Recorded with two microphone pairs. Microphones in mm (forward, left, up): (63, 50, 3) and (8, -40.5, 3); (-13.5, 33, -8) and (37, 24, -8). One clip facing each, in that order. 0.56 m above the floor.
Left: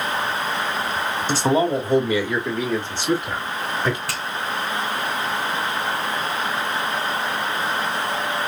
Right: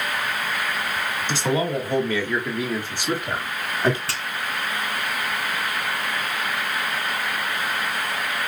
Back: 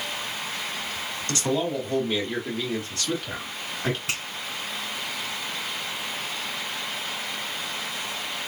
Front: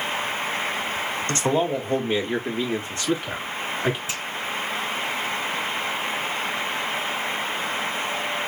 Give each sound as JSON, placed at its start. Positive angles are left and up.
{"t": 1.3, "sound": "a man speaking", "azimuth_deg": 25, "distance_m": 1.5}
{"t": 4.1, "sound": "a finger snap", "azimuth_deg": 175, "distance_m": 3.0}